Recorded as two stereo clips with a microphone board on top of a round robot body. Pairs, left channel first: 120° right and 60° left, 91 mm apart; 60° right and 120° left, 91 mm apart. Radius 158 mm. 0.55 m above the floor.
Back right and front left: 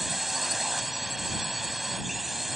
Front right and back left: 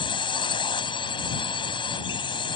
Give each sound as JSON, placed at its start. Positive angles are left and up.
{"t": 0.0, "sound": "a drone", "azimuth_deg": -30}